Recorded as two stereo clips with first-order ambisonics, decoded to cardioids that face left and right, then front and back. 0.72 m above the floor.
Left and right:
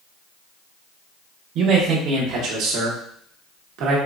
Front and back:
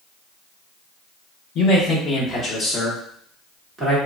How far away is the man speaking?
About 1.4 m.